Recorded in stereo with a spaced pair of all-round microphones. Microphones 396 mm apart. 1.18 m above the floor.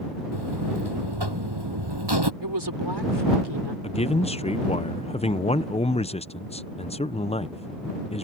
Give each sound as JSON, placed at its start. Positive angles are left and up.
{"t": 0.3, "sound": "a buzzer", "side_deg": -80}
{"t": 2.4, "sound": "a woman speaking", "side_deg": -80}
{"t": 3.8, "sound": "a man speaking", "side_deg": 15}